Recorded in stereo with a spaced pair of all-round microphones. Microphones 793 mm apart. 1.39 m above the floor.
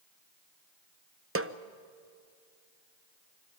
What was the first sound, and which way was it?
A snare drum, 20° right (ahead or behind).